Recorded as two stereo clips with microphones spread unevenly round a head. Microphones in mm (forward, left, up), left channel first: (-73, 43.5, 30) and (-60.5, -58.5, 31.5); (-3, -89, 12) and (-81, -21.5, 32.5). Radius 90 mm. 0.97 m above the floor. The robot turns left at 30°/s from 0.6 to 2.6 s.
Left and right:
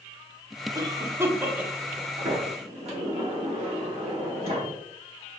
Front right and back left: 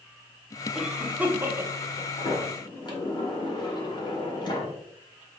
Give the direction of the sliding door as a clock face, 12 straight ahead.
3 o'clock.